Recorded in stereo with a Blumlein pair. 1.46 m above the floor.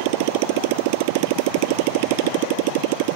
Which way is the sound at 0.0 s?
45° right.